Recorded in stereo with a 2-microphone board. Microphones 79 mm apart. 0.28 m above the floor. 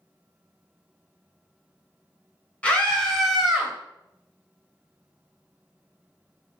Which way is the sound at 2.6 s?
15° left (ahead or behind).